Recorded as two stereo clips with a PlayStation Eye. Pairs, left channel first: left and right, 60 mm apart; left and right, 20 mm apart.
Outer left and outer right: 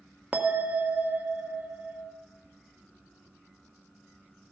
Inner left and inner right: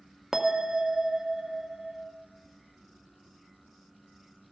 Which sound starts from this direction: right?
A bell, at 0.3 s.